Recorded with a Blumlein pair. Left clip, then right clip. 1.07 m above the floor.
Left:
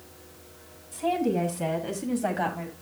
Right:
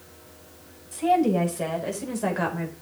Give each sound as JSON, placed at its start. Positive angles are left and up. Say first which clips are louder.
{"t": 0.9, "sound": "a woman speaking", "louder": "right 5 dB", "azimuth_deg": -40, "distance_m": 6.5}